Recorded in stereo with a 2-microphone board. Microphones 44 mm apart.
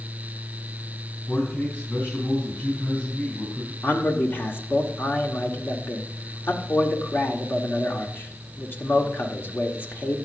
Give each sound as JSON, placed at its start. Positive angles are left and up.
{"t": 1.3, "sound": "a man speaking", "side_deg": 45, "distance_m": 4.0}
{"t": 3.8, "sound": "a man speaking", "side_deg": 55, "distance_m": 1.4}